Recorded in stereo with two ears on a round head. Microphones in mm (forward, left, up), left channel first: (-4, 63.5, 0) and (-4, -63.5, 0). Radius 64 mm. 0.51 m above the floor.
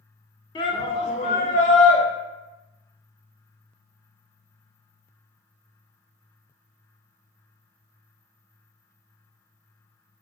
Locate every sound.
0.6 s a shout: 30° left (ahead or behind), 1.1 m; by 2.0 s 55° left (ahead or behind), 2.5 m